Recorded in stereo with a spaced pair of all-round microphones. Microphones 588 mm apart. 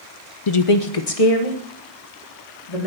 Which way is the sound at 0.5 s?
55° left (ahead or behind).